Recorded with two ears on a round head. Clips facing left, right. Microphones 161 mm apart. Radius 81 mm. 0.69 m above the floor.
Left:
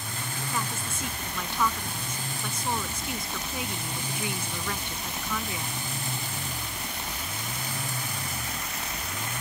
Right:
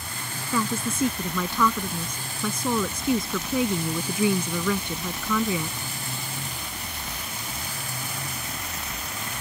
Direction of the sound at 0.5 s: 85° right.